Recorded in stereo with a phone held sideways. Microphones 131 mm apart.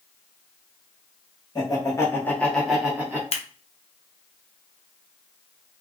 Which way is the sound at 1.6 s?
30° left (ahead or behind).